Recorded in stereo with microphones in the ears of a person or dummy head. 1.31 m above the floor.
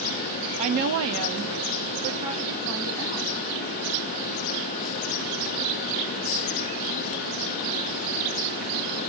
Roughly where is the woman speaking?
Right.